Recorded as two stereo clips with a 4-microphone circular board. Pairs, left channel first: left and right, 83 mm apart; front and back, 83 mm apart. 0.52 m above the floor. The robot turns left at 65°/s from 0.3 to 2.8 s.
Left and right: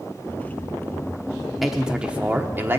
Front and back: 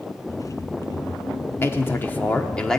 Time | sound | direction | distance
1.6 | a man speaking | 5° right | 1.0 m